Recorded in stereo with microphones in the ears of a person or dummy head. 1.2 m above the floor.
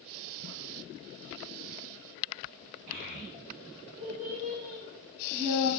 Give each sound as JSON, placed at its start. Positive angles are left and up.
{"t": 2.9, "sound": "a child speaking", "side_deg": -80, "distance_m": 0.8}